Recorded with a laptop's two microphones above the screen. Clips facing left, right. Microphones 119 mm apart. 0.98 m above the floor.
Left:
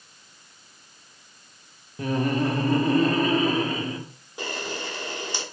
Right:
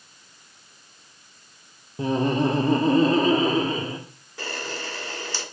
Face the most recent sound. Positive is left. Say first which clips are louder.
# left 1 dB
turn(degrees=15)  # may be behind; listen again after turning